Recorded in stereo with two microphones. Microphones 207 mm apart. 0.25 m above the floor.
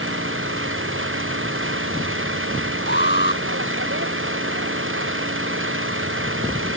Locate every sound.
0.0 s an engine running: 75° right (ahead or behind)
2.9 s an alarm: 55° left (ahead or behind)